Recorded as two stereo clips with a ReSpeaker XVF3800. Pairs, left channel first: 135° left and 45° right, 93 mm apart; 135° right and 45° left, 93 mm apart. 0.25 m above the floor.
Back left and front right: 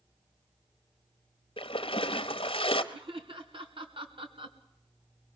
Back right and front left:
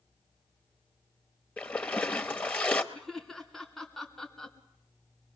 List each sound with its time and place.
1.6 s a splash: 150° left, 1.1 m
2.9 s laughter: 50° right, 2.5 m